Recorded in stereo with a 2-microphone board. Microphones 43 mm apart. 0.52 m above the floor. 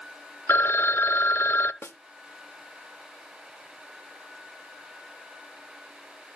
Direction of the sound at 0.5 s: 70° left (ahead or behind).